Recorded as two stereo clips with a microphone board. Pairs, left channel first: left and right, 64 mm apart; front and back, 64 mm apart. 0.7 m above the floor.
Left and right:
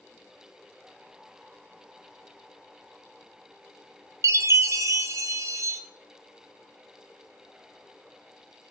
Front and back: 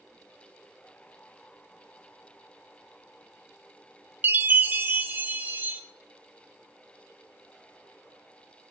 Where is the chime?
120° right, 0.7 m.